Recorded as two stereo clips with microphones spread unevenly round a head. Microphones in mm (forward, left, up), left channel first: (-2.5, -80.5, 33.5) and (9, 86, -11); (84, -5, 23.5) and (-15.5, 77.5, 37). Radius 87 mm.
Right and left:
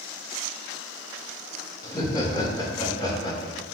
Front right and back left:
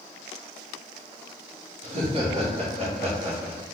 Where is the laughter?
170° right, 1.1 m.